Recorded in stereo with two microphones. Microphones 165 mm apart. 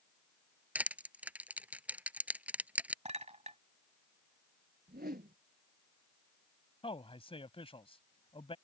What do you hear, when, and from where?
0.8 s crushing: 10° right (ahead or behind)
3.0 s a clink: 45° right (ahead or behind)
4.9 s a whoosh: 75° right (ahead or behind)
6.8 s a man speaking: 35° left (ahead or behind)